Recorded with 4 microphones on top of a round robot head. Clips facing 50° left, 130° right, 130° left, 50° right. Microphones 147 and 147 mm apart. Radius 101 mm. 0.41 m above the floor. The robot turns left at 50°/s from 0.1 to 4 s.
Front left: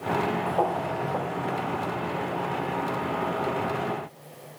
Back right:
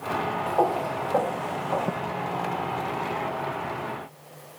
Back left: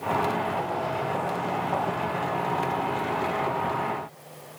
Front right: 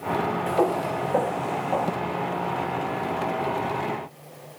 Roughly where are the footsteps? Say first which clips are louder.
Back right 2 dB, front right 5 dB; ahead right.